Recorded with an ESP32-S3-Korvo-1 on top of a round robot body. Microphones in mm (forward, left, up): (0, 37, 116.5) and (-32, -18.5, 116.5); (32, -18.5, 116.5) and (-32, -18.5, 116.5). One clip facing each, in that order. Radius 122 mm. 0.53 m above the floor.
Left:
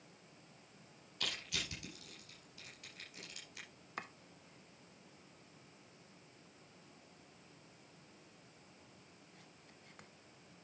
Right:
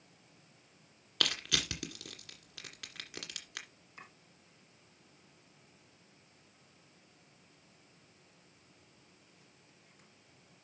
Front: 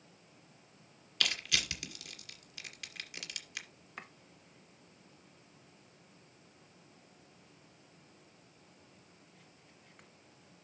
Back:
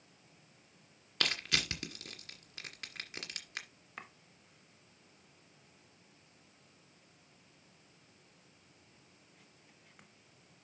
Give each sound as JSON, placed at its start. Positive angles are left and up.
{"t": 1.2, "sound": "crushing", "azimuth_deg": -125, "distance_m": 2.0}
{"t": 4.0, "sound": "chopping", "azimuth_deg": 90, "distance_m": 0.5}